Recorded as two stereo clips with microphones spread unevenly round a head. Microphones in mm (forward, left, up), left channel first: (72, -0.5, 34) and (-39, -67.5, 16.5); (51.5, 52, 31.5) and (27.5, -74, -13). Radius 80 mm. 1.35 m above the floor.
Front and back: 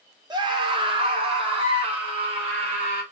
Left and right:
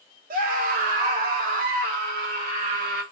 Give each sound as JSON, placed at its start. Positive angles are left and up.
{"t": 0.3, "sound": "a scream", "azimuth_deg": -95, "distance_m": 1.4}